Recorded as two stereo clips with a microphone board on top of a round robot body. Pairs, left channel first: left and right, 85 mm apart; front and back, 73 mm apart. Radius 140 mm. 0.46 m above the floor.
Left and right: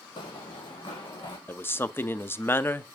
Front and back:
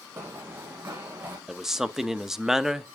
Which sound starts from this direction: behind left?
Running footsteps, at 0.2 s.